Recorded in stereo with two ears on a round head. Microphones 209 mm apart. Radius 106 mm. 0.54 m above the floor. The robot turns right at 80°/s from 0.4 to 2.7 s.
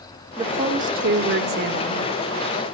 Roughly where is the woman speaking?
Behind.